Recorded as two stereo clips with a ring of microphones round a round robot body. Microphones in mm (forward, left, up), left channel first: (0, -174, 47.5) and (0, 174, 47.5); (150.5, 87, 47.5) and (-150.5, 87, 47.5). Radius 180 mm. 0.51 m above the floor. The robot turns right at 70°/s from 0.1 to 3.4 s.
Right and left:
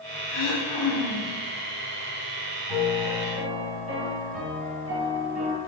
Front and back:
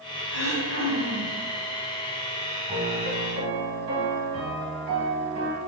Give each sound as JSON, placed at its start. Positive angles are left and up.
{"t": 0.3, "sound": "throat clearing", "azimuth_deg": -55, "distance_m": 1.7}
{"t": 2.7, "sound": "a piano", "azimuth_deg": 115, "distance_m": 1.8}